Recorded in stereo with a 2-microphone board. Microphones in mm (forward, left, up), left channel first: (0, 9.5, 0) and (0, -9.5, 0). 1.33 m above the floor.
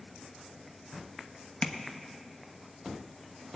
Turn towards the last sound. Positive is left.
turn(degrees=60)  # may be behind; listen again after turning